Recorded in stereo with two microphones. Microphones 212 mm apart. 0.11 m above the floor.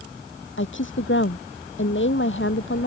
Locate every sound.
0.6 s a woman speaking: 65° left (ahead or behind)